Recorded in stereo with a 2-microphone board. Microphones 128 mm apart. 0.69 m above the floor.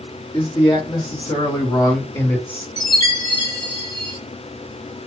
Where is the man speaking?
35° left (ahead or behind), 1.5 m; by 2.7 s 15° left (ahead or behind), 1.4 m.